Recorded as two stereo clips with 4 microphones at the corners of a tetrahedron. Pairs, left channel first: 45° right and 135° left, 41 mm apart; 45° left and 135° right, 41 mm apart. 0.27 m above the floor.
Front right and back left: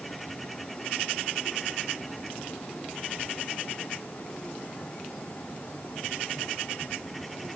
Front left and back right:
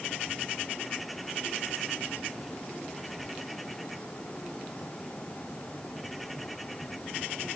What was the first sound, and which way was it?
Only background noise.